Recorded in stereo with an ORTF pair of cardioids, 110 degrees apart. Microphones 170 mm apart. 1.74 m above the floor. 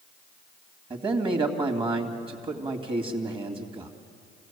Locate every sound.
0.9 s a man speaking: 35° right, 3 m